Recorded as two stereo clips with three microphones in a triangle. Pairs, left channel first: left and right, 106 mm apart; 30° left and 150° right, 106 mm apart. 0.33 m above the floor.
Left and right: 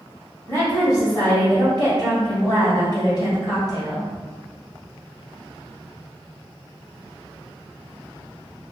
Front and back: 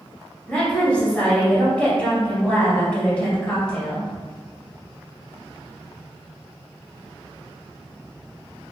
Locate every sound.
0.5 s a woman speaking: 95° left, 1.7 m